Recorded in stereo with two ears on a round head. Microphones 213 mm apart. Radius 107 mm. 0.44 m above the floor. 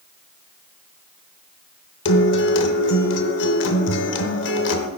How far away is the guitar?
About 0.8 m.